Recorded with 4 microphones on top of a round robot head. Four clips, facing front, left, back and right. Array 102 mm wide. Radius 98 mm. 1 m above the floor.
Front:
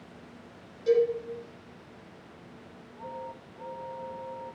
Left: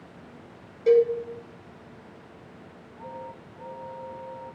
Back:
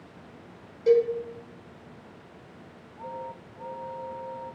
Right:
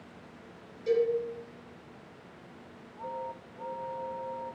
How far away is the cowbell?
About 1.1 m.